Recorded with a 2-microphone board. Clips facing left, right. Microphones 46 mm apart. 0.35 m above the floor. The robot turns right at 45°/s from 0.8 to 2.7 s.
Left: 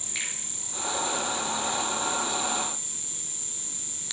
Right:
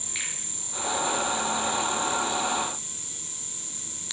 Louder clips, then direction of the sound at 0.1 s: Left 1 dB; 5° right (ahead or behind).